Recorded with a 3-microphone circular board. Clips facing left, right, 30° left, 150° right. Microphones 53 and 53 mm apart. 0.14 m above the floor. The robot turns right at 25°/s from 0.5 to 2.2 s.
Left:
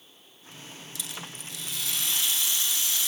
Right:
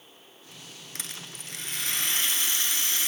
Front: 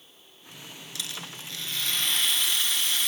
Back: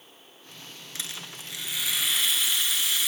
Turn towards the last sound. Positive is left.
turn(degrees=-65)